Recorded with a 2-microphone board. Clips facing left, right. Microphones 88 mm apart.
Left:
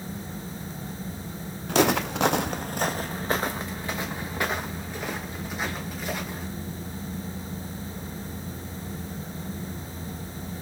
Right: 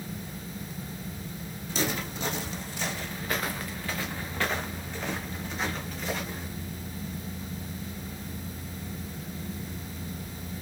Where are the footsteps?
65° left (ahead or behind), 0.5 m; by 6.5 s 5° left (ahead or behind), 2 m.